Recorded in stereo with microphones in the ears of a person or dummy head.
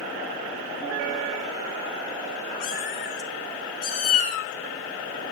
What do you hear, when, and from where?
2.6 s a cat meowing: 50° left (ahead or behind), 1.5 m